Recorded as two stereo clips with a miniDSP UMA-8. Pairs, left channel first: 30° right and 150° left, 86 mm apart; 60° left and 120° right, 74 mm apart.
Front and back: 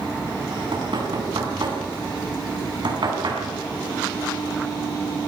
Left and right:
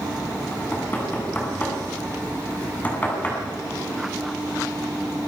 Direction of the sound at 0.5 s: 125° left.